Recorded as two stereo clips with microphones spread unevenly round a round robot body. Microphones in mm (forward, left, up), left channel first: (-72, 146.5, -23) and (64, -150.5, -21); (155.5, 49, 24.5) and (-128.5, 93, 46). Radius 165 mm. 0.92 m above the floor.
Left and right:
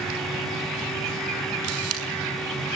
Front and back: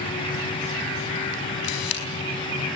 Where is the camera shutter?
20° right, 5 m.